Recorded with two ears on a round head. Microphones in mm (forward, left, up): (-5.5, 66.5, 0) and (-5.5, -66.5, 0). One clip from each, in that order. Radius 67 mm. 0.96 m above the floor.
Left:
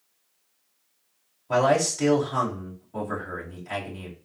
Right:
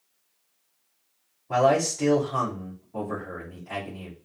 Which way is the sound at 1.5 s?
75° left (ahead or behind).